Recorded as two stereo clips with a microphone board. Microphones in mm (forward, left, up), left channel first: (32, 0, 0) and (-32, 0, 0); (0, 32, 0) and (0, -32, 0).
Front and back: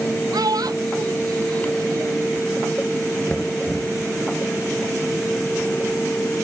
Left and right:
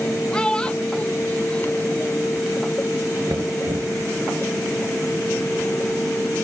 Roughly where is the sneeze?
I don't hear a sneeze.